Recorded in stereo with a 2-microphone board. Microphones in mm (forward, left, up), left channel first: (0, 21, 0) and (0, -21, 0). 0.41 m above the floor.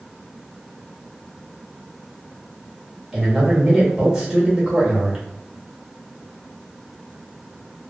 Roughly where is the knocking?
I don't hear knocking.